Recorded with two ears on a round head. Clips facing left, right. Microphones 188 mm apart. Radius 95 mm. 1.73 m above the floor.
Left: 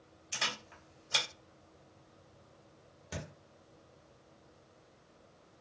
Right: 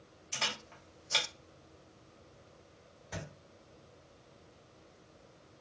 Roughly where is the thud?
Left.